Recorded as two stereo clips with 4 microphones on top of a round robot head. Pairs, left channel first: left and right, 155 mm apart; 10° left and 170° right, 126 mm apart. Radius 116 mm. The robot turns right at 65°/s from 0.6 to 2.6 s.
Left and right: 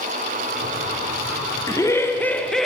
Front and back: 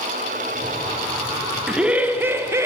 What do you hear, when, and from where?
1.7 s laughter: 115° left, 0.6 m; by 2.7 s 175° left, 0.6 m